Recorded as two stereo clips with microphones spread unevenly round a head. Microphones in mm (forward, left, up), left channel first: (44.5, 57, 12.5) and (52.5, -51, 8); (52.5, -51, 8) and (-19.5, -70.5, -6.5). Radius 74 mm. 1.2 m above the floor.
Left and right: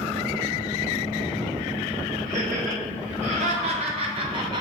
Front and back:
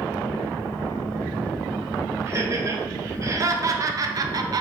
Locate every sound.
2.3 s laughter: 115° right, 2 m; by 4.6 s 145° right, 0.8 m